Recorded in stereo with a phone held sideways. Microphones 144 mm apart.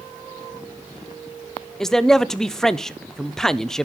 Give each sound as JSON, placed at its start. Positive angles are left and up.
{"t": 1.8, "sound": "a man speaking", "side_deg": 5, "distance_m": 0.6}